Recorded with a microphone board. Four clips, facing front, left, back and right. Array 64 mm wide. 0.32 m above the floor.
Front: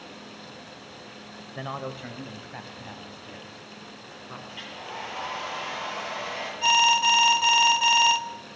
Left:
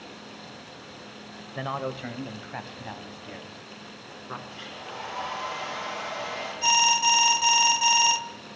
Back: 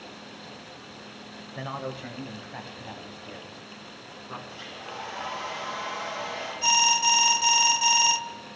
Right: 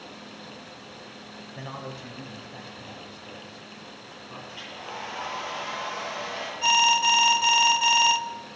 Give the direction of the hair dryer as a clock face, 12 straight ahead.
1 o'clock.